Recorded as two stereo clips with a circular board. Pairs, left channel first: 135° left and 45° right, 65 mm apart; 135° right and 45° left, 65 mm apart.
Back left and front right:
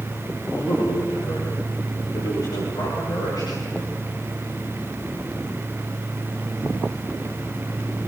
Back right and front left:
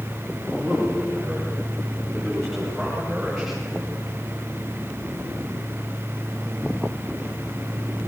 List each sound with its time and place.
0.6 s a man speaking: 150° left, 9 m; by 3.9 s 135° left, 10 m